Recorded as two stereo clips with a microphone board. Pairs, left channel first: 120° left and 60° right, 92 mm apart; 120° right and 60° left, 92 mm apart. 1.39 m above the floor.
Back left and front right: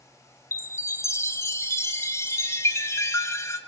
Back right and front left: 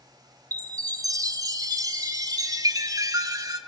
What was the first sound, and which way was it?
A chime, 80° left.